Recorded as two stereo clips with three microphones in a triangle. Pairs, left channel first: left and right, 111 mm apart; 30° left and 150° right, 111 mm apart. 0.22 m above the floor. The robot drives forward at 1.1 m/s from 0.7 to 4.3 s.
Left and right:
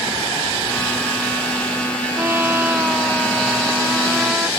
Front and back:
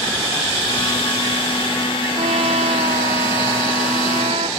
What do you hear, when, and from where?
2.2 s a trumpet: 160° right; by 4.5 s 170° right